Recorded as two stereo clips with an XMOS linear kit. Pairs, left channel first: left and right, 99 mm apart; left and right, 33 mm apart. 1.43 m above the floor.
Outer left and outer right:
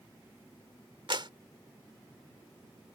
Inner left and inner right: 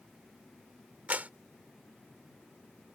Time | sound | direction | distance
1.1 | a clap | 55° right (ahead or behind) | ?